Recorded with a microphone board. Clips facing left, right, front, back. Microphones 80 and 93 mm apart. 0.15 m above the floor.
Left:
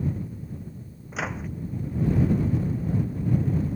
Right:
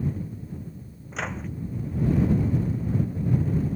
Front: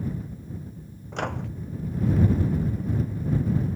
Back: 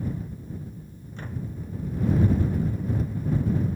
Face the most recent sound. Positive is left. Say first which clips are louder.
# left 1 dB, front 6 dB
turn(degrees=5)